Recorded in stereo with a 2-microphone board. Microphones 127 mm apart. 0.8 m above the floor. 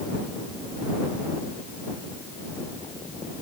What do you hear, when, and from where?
Only background noise.